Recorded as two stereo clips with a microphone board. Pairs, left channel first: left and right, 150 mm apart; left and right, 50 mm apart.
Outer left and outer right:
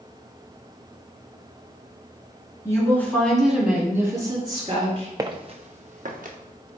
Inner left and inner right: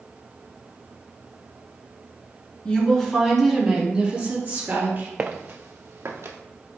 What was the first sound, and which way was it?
A woman speaking, 20° left (ahead or behind).